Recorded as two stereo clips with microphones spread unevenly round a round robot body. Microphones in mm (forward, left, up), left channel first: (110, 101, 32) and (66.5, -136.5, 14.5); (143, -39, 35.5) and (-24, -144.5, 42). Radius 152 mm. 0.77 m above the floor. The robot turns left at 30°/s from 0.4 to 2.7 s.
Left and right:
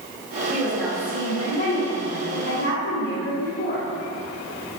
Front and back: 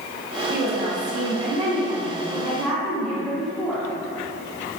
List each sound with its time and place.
0.5 s a woman speaking: 175° right, 1.4 m; by 3.9 s 115° left, 1.4 m